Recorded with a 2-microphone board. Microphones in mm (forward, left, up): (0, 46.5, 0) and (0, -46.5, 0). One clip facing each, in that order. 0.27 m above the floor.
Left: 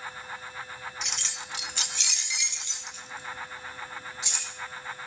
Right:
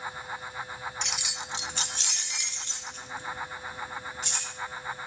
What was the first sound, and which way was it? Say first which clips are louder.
Keys jangling: right 2 dB; 5° left (ahead or behind).